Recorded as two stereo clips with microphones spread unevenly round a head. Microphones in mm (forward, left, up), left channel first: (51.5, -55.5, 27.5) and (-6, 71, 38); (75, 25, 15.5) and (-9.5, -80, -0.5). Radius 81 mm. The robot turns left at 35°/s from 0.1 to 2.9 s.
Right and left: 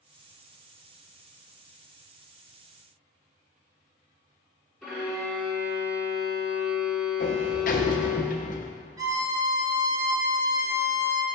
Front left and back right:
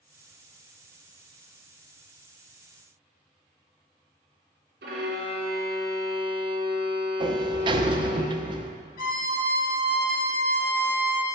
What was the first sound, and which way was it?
A violin, 155° right.